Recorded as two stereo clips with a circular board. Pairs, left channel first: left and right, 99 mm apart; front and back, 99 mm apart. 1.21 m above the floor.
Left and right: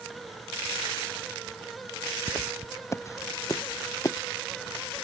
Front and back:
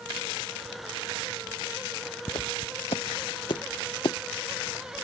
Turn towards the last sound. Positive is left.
turn(degrees=35)